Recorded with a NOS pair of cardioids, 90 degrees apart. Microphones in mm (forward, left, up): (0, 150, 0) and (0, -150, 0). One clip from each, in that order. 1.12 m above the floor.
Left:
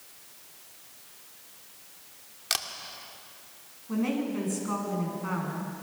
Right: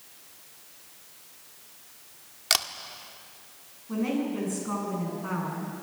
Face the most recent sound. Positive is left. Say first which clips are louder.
# right 1 dB
turn(degrees=10)